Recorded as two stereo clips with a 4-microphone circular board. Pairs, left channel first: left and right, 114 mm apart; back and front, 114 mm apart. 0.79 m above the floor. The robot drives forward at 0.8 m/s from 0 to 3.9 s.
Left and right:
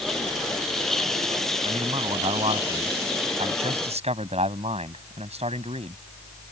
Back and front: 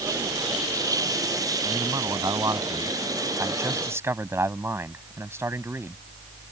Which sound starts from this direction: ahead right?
A man speaking, at 1.6 s.